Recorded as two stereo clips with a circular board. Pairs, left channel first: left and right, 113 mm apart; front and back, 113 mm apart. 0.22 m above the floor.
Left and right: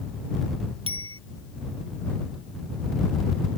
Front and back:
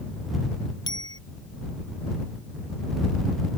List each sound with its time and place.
0.9 s a bicycle bell: 50° right